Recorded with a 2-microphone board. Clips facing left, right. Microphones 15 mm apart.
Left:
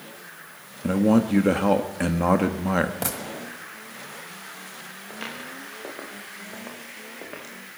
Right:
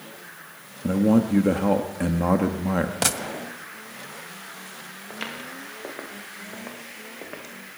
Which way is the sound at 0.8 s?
30° left (ahead or behind).